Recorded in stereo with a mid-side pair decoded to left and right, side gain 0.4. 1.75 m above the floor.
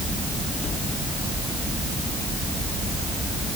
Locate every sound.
Only background noise.